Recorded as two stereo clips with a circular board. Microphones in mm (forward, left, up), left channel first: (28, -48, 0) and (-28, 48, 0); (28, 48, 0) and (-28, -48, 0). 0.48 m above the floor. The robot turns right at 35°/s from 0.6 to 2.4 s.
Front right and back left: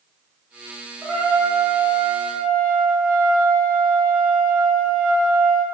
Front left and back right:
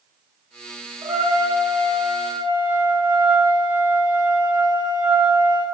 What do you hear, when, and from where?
1.0 s a trumpet: 145° right, 1.6 m; by 5.7 s 100° right, 1.6 m